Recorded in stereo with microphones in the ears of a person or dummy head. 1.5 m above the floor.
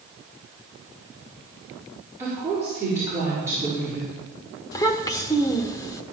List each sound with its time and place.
2.2 s a woman speaking: 10° right (ahead or behind), 5 m
4.7 s a child speaking: 20° left (ahead or behind), 1.0 m